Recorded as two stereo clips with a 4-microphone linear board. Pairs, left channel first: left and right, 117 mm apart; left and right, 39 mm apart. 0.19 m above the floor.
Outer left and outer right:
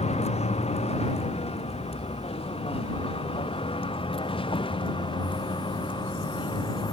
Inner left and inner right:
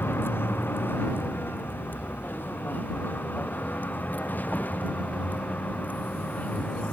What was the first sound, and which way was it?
A vehicle, 65° left (ahead or behind).